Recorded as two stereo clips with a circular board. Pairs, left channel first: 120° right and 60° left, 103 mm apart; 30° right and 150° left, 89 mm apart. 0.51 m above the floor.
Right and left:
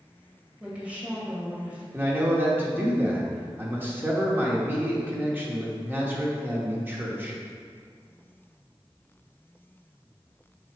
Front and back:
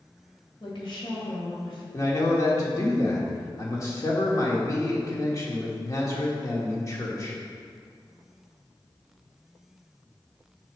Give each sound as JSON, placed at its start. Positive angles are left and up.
{"t": 0.6, "sound": "a woman speaking", "azimuth_deg": -15, "distance_m": 2.0}
{"t": 1.9, "sound": "a man speaking", "azimuth_deg": 0, "distance_m": 1.2}